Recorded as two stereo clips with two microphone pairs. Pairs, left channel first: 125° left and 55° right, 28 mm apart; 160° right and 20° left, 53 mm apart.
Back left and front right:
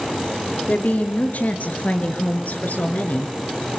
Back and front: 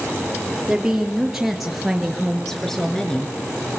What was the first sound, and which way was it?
A woman speaking, 100° left.